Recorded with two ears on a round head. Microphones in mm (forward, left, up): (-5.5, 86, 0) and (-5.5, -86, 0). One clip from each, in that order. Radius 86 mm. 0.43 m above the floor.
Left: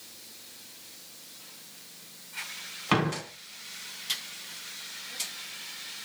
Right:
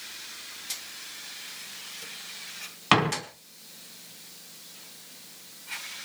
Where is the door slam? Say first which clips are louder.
Right 5 dB; 35° right (ahead or behind), 3 m.